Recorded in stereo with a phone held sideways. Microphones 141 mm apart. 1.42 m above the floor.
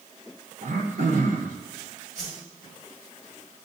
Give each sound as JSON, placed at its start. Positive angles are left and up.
{"t": 0.6, "sound": "throat clearing", "side_deg": -60, "distance_m": 1.0}
{"t": 2.1, "sound": "a whoosh", "side_deg": -80, "distance_m": 3.0}